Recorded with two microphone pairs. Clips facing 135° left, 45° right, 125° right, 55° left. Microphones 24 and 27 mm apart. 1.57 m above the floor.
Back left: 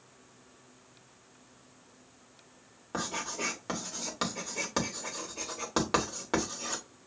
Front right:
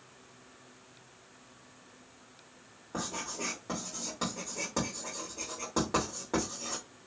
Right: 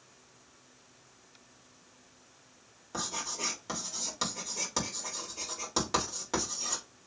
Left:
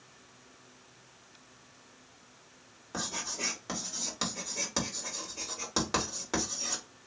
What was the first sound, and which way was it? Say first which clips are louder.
Writing: back left 3 dB, even; 145° left.